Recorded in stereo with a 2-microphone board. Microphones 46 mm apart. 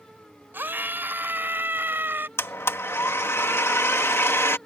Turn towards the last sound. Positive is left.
turn(degrees=60)  # may be behind; listen again after turning